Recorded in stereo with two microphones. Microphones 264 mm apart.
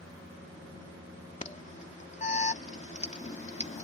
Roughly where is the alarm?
Left.